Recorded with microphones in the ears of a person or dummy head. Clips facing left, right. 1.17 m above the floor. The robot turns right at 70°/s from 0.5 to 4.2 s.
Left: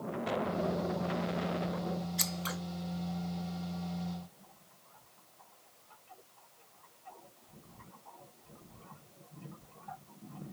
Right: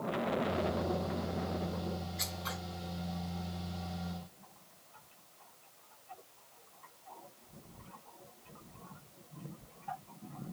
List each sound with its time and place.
2.2 s scissors: 50° left (ahead or behind), 0.5 m; by 2.6 s 25° left (ahead or behind), 0.5 m